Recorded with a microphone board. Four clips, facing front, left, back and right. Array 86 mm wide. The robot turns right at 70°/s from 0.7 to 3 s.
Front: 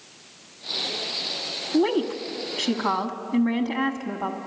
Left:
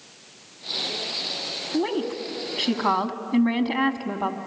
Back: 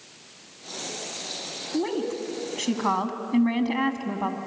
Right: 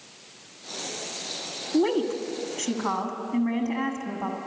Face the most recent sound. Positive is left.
turn(degrees=95)